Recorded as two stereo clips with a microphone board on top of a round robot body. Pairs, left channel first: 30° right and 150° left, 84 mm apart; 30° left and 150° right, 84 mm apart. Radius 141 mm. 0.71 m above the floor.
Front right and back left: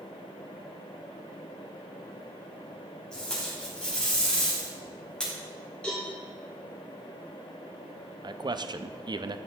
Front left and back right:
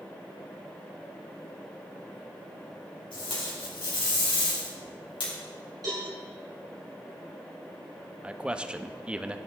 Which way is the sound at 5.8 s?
105° right.